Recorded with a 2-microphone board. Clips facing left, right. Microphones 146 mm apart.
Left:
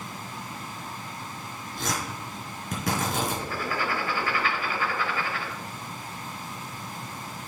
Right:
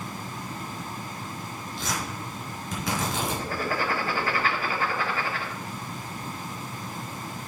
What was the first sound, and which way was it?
Tearing paper, 60° left (ahead or behind).